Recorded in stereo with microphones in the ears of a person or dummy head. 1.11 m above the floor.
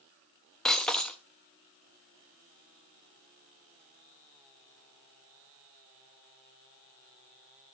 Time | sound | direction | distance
0.7 | breaking glass | 5° left (ahead or behind) | 0.7 m